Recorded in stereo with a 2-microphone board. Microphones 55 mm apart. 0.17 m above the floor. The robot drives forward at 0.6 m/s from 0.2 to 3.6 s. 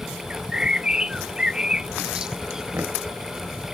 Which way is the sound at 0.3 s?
15° right (ahead or behind).